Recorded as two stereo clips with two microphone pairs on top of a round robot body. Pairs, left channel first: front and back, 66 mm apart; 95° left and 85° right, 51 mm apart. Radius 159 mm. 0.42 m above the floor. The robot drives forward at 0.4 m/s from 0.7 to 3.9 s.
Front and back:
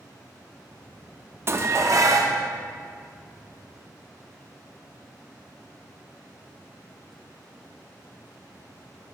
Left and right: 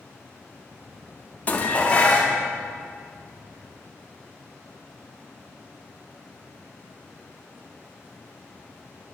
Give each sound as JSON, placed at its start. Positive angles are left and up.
{"t": 1.5, "sound": "dishes clattering", "azimuth_deg": 155, "distance_m": 0.6}